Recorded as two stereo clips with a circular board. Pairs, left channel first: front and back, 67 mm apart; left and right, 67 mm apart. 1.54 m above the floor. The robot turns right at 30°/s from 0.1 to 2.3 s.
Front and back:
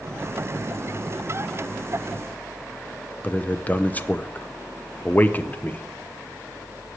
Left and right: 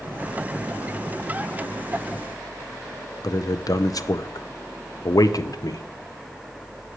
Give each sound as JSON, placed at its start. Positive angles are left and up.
{"t": 3.2, "sound": "a man speaking", "azimuth_deg": 65, "distance_m": 0.6}